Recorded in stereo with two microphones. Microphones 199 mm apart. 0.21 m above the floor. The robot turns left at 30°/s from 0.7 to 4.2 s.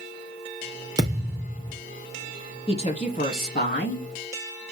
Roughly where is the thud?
Right.